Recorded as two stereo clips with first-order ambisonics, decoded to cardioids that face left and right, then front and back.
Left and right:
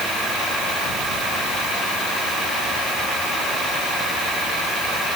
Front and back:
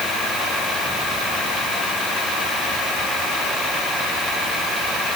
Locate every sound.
Only background noise.